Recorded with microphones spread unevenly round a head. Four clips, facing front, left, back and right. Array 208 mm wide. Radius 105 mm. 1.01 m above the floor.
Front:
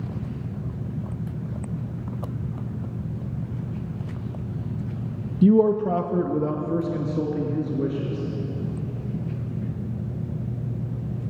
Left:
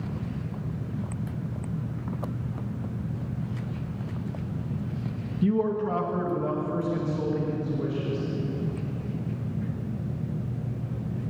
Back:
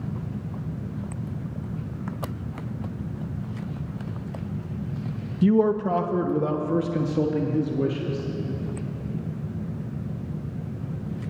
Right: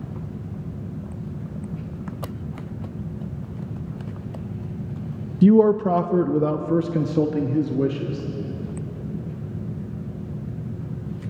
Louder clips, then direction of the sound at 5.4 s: Right 10 dB, front 3 dB; 65° right.